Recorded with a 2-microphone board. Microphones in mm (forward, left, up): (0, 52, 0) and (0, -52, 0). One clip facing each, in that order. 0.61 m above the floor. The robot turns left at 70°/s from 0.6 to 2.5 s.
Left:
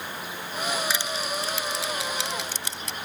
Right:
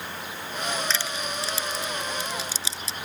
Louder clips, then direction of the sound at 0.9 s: Left 1 dB; 10° left (ahead or behind).